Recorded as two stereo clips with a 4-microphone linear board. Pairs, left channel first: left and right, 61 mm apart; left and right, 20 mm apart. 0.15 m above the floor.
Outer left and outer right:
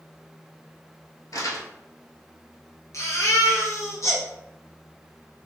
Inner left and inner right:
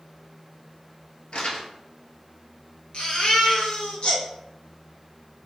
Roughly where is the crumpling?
Left.